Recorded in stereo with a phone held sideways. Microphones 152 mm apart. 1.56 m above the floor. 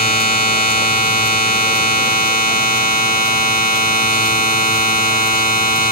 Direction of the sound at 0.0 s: 75° left (ahead or behind).